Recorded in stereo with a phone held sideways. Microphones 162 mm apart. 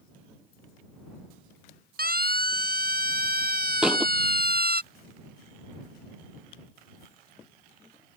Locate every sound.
2.0 s a siren: 65° right (ahead or behind); by 4.8 s 70° right (ahead or behind)
3.8 s a thud: 5° right (ahead or behind)